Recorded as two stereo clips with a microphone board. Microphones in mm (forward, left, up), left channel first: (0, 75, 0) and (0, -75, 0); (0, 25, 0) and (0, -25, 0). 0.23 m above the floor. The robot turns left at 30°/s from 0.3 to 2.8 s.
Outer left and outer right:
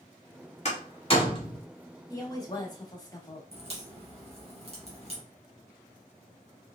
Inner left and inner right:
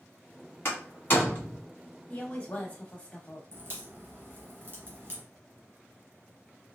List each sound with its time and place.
0.7 s a door slam: 50° left (ahead or behind), 1.8 m; by 1.6 s 25° left (ahead or behind), 1.8 m
2.1 s a woman speaking: 25° left (ahead or behind), 1.0 m
3.5 s a crack: 40° right (ahead or behind), 2 m